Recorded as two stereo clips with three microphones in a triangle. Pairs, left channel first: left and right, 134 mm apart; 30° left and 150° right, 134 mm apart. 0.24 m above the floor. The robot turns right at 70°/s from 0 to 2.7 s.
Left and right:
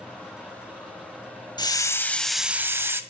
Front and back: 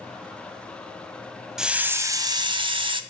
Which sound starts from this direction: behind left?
A hiss, at 1.6 s.